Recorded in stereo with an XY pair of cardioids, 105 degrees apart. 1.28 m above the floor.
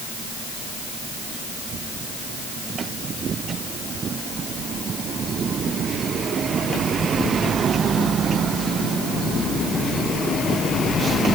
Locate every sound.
Only background noise.